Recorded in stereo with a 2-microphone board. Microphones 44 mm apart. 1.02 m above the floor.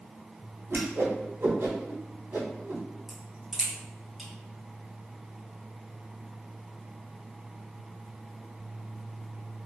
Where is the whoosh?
60° right (ahead or behind), 0.8 m.